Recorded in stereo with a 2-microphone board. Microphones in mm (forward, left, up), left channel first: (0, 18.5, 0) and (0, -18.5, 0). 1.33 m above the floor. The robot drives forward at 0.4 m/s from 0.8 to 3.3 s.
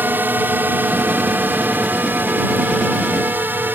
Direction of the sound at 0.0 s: 60° right (ahead or behind).